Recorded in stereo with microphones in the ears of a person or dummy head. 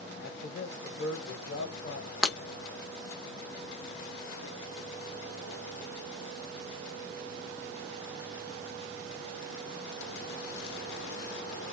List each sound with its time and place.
0.2 s a man speaking: 50° left (ahead or behind), 1.1 m
2.2 s breaking glass: 5° left (ahead or behind), 0.6 m